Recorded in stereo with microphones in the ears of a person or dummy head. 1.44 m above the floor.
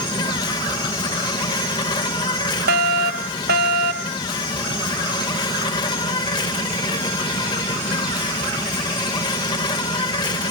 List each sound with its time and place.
0.0 s an insect: 25° left (ahead or behind)
2.7 s a fire alarm: 55° right (ahead or behind)